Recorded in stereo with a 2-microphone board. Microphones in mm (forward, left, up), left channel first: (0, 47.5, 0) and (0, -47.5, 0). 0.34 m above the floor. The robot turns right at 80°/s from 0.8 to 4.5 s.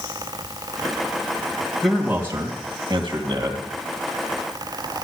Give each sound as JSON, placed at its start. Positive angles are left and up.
{"t": 1.8, "sound": "a man speaking", "azimuth_deg": 175, "distance_m": 2.0}